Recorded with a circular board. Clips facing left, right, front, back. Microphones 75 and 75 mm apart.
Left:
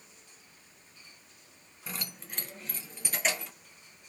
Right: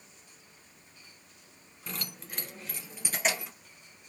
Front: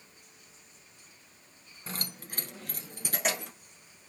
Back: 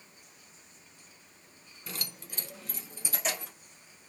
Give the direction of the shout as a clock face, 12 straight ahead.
I don't hear a shout.